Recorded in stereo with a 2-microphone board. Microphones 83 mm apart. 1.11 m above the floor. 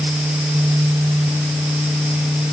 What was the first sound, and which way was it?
Only background noise.